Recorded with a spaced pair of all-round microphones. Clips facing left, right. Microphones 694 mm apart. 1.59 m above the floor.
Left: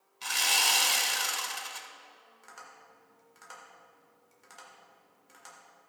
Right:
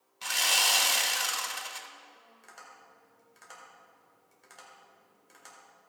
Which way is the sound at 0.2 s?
10° right (ahead or behind).